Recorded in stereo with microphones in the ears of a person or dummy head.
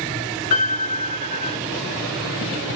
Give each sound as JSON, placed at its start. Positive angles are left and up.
{"t": 0.5, "sound": "a piano", "side_deg": 30, "distance_m": 1.7}